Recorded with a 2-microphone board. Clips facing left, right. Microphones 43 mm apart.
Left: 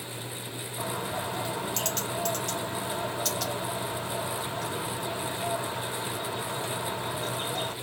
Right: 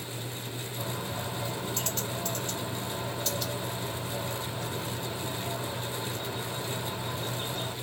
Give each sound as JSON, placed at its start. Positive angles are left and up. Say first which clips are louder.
{"t": 0.8, "sound": "a bird", "louder": "left 4 dB", "side_deg": 85, "distance_m": 1.9}